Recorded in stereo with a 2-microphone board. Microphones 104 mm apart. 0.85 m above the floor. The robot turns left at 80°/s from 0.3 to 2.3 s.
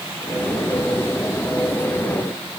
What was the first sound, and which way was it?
Only background noise.